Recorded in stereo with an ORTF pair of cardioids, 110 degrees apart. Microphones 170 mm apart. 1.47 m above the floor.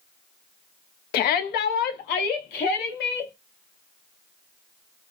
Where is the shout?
70° left, 0.5 m; by 3.3 s 75° left, 1.8 m.